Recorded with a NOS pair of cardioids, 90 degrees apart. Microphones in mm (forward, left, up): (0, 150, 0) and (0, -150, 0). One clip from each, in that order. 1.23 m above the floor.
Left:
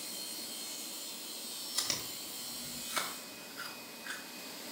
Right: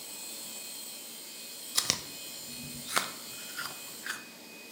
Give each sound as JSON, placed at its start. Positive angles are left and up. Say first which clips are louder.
{"t": 1.8, "sound": "chewing", "louder": "right 6 dB", "azimuth_deg": -40, "distance_m": 0.6}